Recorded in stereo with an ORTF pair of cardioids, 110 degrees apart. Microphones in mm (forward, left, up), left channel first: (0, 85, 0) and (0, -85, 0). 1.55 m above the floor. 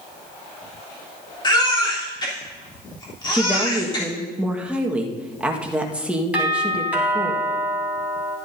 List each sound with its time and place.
1.4 s a baby crying: 25° left, 3.5 m
3.3 s a woman speaking: 5° right, 1.5 m
6.3 s a doorbell: 10° right, 3.5 m